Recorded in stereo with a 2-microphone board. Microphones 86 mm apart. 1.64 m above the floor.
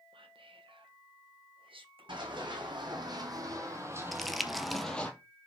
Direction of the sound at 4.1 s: Centre (ahead or behind).